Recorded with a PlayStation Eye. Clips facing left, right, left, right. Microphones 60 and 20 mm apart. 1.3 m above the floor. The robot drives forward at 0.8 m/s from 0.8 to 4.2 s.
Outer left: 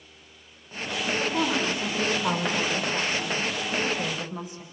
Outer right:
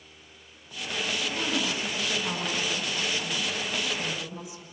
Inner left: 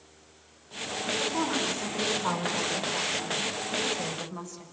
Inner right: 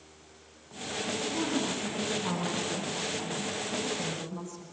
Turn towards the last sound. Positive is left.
turn(degrees=45)  # may be behind; listen again after turning